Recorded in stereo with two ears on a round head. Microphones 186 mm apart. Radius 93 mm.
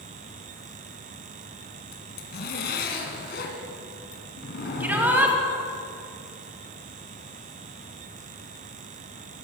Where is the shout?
10° right (ahead or behind), 2.5 m.